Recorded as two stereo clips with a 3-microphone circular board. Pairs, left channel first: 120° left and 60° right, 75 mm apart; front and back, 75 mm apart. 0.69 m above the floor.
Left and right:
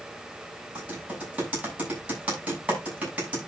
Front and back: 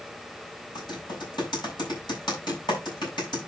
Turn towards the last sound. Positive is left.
turn(degrees=10)